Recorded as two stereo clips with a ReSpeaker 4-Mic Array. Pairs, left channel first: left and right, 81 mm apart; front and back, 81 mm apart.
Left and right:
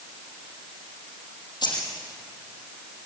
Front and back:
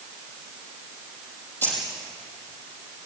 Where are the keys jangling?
65° left, 6 m.